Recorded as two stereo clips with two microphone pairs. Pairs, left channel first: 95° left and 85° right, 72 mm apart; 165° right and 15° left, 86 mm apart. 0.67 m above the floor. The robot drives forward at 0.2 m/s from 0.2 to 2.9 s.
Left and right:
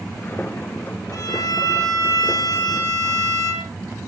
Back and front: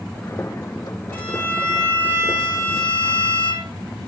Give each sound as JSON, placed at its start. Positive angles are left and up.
{"t": 1.1, "sound": "a violin", "azimuth_deg": 125, "distance_m": 4.5}